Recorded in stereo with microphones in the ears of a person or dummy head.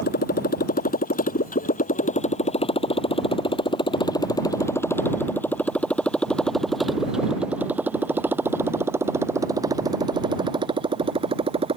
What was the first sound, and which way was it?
A motorcycle, 45° left (ahead or behind).